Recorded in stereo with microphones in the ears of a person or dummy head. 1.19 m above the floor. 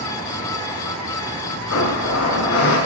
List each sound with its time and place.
1.7 s a blender: 80° left, 4.5 m